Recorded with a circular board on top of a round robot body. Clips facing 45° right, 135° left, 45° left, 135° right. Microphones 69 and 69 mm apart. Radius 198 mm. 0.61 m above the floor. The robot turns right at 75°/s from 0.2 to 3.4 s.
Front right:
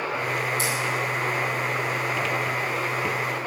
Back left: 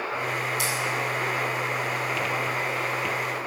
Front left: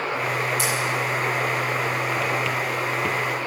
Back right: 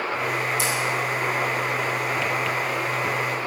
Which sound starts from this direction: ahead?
Scissors, at 0.6 s.